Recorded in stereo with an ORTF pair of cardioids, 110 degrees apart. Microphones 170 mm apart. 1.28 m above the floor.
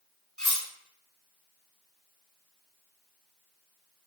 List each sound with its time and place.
0.4 s cutlery clinking: 5° left, 1.5 m